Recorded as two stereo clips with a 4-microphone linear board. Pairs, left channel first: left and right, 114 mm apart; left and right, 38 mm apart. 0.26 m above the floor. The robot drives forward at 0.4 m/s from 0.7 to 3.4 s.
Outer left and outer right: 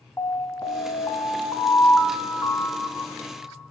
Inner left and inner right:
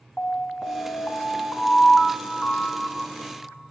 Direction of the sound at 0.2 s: 20° left (ahead or behind).